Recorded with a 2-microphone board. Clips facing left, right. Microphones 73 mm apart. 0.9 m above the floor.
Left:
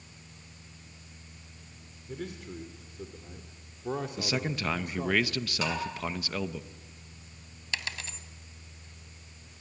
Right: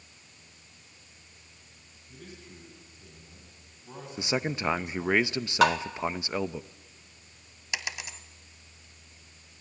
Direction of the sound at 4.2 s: 25° right (ahead or behind).